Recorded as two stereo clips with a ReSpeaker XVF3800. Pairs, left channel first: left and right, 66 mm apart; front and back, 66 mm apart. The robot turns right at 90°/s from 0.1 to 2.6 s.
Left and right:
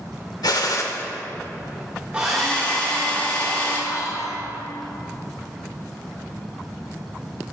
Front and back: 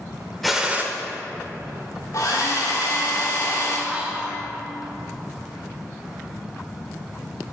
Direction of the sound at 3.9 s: 105° left.